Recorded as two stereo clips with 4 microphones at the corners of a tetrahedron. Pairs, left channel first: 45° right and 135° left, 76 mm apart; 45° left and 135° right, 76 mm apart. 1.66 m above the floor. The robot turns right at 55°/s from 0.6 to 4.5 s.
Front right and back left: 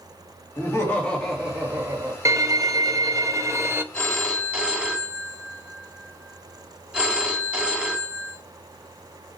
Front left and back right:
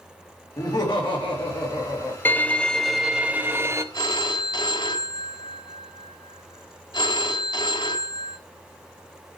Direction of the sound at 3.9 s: 25° left.